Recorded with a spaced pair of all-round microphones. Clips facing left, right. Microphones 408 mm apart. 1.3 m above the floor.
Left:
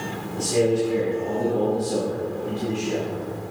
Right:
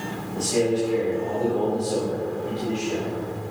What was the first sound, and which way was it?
A man speaking, 35° left (ahead or behind).